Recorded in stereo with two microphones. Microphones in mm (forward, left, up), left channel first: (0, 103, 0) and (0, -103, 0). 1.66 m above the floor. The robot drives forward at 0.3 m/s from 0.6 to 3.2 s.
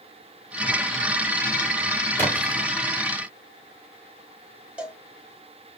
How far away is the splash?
About 3 m.